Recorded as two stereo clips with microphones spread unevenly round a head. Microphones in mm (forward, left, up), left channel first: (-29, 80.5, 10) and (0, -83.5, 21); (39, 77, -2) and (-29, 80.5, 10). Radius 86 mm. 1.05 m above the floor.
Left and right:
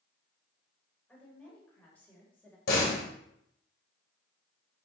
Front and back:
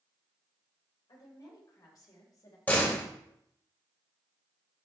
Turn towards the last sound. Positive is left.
turn(degrees=65)